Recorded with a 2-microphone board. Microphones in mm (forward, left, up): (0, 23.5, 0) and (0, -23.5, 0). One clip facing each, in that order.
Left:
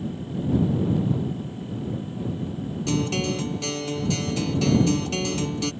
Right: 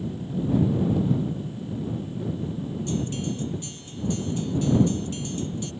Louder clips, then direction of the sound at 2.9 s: Left 6 dB; 85° left.